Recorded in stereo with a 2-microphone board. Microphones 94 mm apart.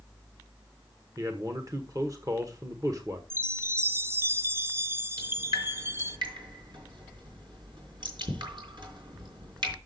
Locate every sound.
1.2 s a man speaking: 40° right (ahead or behind), 1.1 m
3.3 s a chime: 25° right (ahead or behind), 0.5 m
5.2 s dripping: 60° right (ahead or behind), 4 m